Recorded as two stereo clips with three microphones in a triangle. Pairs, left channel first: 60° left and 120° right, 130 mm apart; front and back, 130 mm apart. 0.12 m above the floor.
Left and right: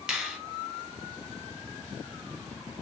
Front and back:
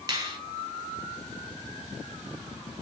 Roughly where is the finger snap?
Behind.